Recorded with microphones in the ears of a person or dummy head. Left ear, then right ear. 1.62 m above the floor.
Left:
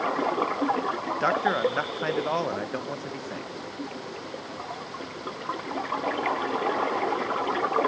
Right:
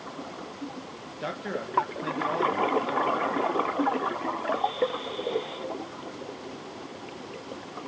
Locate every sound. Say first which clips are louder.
1.2 s a man speaking: left 9 dB; 40° left (ahead or behind), 1.5 m